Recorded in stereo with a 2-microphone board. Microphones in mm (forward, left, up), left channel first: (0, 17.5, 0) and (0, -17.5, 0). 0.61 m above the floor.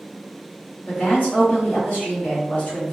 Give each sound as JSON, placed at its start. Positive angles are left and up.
{"t": 0.9, "sound": "a woman speaking", "side_deg": 55, "distance_m": 1.3}